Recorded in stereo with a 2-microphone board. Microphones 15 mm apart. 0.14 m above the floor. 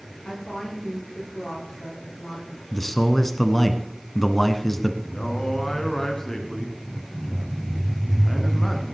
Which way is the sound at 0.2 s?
75° left (ahead or behind).